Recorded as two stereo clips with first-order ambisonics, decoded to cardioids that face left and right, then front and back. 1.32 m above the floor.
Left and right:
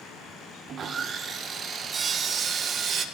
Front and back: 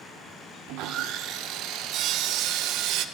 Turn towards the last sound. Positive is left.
turn(degrees=-150)